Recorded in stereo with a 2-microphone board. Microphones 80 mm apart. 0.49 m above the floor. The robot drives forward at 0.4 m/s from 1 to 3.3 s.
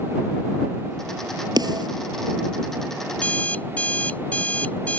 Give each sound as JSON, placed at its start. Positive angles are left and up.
{"t": 1.6, "sound": "a snare drum", "side_deg": -55}
{"t": 3.1, "sound": "an alarm clock", "side_deg": 20}